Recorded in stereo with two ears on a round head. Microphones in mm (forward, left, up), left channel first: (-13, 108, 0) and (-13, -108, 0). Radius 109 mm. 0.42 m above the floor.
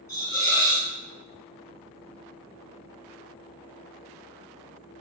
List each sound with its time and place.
0.1 s a hiss: 15° left (ahead or behind), 0.8 m